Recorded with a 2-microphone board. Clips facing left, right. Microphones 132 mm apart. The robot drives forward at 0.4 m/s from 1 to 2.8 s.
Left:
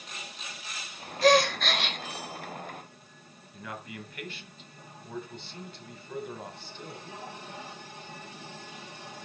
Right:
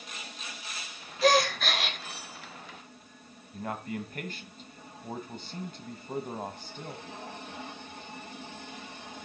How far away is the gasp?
About 1.5 m.